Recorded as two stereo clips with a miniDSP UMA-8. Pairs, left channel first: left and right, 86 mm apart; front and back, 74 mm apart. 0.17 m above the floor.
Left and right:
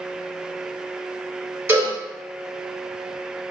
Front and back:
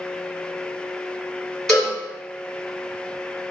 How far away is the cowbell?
About 1.8 m.